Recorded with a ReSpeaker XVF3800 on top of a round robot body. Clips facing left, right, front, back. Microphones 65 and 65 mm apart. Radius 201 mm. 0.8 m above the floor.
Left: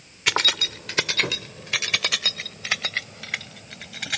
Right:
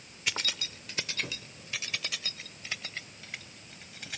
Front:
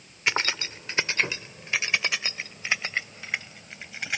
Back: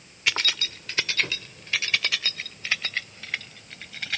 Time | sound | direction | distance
0.3 | keys jangling | 65° left | ?